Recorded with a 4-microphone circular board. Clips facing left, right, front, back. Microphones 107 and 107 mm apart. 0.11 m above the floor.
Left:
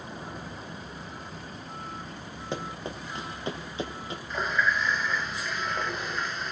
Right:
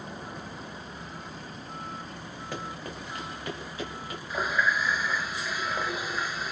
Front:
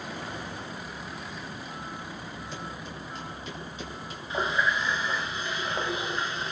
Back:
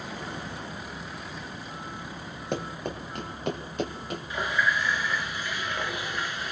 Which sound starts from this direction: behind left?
Running footsteps, at 2.5 s.